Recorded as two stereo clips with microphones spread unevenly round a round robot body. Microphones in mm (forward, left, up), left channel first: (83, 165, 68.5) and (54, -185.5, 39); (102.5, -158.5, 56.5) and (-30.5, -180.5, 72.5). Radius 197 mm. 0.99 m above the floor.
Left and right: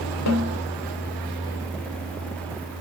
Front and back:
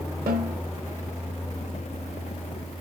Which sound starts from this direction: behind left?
A snare drum, at 0.3 s.